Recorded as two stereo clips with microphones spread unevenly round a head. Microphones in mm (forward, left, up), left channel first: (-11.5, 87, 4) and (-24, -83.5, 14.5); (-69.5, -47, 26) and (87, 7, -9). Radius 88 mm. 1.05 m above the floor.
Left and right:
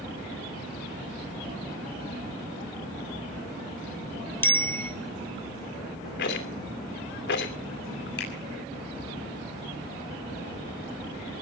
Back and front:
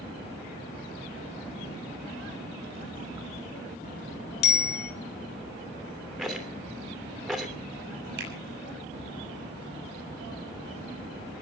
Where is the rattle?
110° left, 2.5 m.